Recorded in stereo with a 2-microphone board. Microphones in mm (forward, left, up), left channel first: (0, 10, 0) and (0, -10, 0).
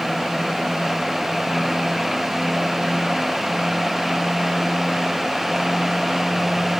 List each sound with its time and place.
Only background noise.